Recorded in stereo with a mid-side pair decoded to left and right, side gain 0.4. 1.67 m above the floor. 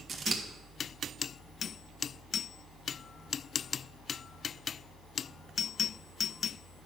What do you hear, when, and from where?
0.1 s scissors: 50° right, 2 m